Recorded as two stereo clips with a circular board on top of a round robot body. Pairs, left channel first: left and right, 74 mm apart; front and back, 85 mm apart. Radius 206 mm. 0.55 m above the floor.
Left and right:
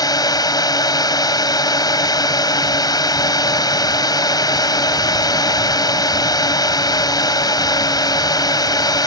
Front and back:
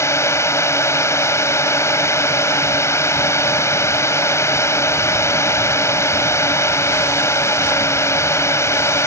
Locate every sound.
0.0 s a drone: 60° left